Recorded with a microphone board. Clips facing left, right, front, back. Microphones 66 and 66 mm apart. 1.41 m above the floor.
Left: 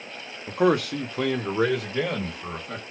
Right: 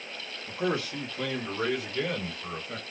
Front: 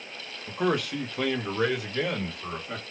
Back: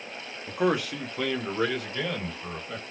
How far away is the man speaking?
About 0.9 m.